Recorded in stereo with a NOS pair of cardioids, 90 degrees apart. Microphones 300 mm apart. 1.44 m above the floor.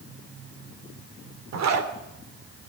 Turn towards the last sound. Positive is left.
turn(degrees=-60)